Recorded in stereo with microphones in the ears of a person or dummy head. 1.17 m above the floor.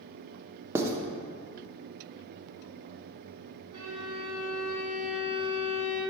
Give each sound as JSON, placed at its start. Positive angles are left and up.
{"t": 0.8, "sound": "writing", "side_deg": -20, "distance_m": 0.6}
{"t": 3.7, "sound": "a violin", "side_deg": -30, "distance_m": 1.6}